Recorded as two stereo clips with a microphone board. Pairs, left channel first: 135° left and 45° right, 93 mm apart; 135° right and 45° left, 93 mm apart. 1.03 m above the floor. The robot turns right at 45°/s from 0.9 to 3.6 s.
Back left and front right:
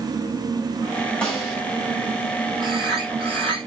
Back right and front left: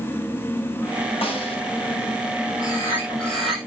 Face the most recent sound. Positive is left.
turn(degrees=-40)